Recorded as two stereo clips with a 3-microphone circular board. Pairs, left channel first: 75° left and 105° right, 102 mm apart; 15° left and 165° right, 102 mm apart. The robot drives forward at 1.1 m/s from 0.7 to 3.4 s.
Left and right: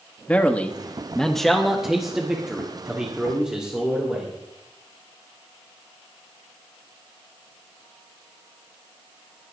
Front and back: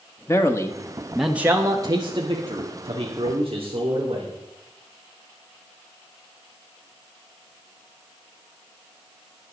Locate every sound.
0.3 s a man speaking: 15° left, 1.1 m; by 4.3 s 175° left, 2.5 m